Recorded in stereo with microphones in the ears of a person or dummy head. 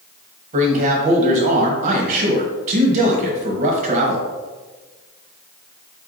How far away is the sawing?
I don't hear sawing.